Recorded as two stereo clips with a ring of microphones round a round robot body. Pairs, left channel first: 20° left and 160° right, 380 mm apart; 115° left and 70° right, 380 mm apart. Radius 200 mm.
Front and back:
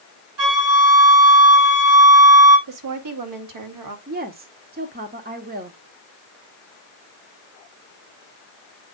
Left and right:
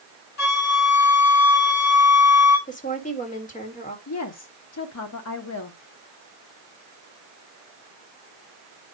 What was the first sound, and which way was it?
A flute, 160° left.